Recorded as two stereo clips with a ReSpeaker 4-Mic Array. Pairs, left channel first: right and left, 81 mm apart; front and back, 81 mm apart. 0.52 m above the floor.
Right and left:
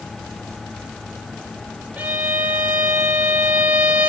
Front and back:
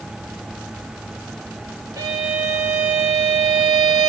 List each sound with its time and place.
2.0 s a violin: 155° left, 1.9 m